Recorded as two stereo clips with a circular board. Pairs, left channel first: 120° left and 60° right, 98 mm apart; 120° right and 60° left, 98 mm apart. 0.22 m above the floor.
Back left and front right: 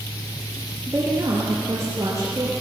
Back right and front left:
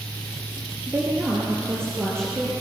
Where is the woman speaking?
Straight ahead, 3 m; by 2.5 s 5° right, 5.5 m.